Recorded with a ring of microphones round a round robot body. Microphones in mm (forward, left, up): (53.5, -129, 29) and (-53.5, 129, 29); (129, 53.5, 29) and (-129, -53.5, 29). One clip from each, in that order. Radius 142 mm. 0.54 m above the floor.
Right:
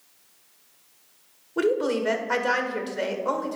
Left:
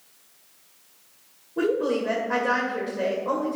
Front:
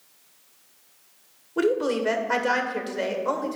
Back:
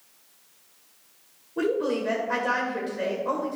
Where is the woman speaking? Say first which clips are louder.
Even, front 2 dB; 35° right, 1.9 m.